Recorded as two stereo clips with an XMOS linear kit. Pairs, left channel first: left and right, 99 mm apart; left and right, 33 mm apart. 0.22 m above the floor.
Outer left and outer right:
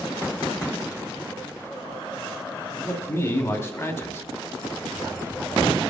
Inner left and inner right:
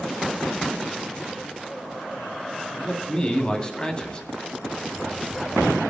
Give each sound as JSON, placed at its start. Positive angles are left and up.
{"t": 2.8, "sound": "a man speaking", "side_deg": 30, "distance_m": 1.8}